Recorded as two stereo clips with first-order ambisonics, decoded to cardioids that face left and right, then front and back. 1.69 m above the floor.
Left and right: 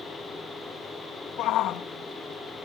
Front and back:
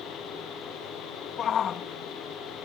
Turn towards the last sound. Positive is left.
turn(degrees=55)